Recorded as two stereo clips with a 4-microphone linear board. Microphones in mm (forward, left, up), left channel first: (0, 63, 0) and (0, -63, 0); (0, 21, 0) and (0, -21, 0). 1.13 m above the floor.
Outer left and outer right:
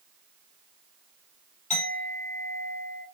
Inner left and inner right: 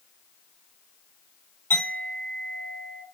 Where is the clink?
75° left (ahead or behind), 1.6 m.